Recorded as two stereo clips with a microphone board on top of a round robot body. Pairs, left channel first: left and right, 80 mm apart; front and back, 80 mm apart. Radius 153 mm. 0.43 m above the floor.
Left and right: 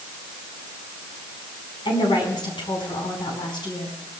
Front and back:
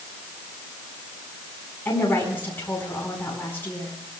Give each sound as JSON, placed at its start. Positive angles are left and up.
{"t": 1.9, "sound": "a woman speaking", "azimuth_deg": 65, "distance_m": 5.0}